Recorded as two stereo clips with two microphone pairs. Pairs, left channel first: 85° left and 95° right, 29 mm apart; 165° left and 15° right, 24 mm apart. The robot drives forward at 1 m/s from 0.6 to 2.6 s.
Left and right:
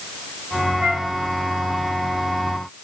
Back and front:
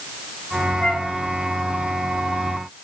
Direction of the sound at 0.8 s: 125° right.